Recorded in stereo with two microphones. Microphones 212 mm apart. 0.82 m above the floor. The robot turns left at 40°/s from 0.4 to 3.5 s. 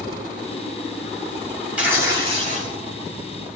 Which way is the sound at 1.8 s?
5° right.